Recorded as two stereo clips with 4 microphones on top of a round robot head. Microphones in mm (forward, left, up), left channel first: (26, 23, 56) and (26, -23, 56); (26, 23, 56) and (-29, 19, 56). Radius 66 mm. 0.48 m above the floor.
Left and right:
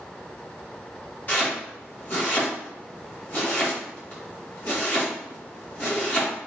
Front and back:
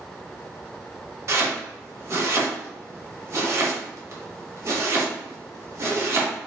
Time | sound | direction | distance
1.3 | chopping | 145° left | 1.0 m